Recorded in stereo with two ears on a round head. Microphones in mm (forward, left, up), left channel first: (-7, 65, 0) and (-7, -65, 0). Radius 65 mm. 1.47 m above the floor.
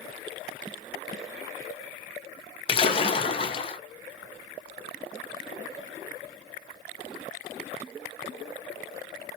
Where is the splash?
35° left (ahead or behind), 0.7 m.